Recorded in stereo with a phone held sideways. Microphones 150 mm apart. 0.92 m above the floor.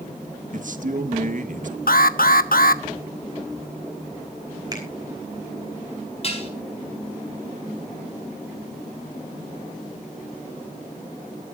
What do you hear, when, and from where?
0.5 s a man speaking: 60° right (ahead or behind), 1.6 m
1.9 s an alarm: 75° left (ahead or behind), 0.9 m
4.7 s a finger snap: 25° right (ahead or behind), 5 m
6.2 s dishes clattering: 45° left (ahead or behind), 4.5 m